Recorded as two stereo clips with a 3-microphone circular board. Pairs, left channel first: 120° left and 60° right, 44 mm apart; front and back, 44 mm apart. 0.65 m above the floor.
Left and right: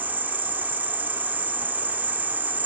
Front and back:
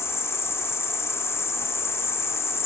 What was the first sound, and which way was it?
An insect, 10° right.